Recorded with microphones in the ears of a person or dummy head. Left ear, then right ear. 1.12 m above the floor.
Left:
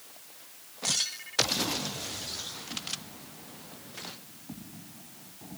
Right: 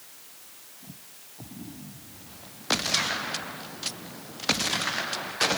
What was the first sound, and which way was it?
Only background noise.